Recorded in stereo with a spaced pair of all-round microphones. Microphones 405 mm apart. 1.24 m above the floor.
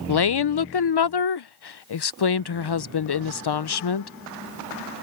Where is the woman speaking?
75° left (ahead or behind).